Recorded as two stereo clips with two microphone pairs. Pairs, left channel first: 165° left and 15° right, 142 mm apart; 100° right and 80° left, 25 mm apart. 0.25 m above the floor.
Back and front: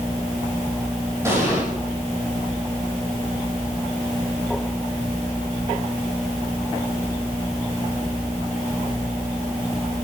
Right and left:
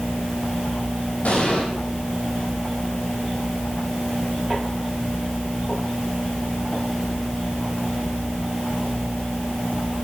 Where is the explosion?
90° right, 5.5 m.